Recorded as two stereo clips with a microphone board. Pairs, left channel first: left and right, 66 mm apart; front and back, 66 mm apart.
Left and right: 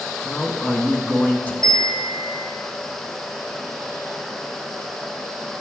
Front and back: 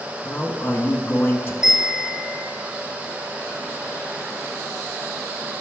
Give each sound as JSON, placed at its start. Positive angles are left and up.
{"t": 0.2, "sound": "a man speaking", "azimuth_deg": 35, "distance_m": 1.9}
{"t": 1.6, "sound": "a bell", "azimuth_deg": -100, "distance_m": 2.5}